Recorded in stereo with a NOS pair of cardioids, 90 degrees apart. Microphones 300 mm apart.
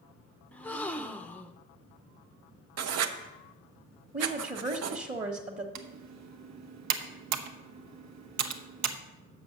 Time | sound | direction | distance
0.5 | a gasp | 5° left | 0.6 m
2.8 | writing | 55° right | 0.8 m
4.1 | a woman speaking | 25° right | 1.3 m
5.8 | typing on a keyboard | 65° right | 0.9 m